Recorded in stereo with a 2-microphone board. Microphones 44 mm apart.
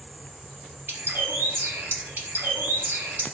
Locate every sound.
0.9 s a bird: 60° right (ahead or behind), 0.6 m